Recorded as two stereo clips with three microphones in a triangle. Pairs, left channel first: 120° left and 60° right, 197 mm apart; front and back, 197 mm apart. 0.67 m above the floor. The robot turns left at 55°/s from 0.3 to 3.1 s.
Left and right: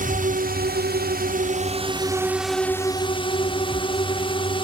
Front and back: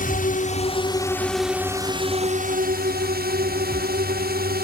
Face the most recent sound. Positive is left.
turn(degrees=175)